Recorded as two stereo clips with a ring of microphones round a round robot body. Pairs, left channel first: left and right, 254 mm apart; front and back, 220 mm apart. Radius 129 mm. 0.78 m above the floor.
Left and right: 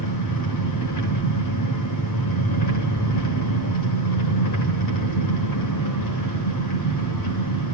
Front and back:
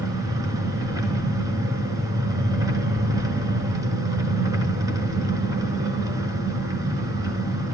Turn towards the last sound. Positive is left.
turn(degrees=105)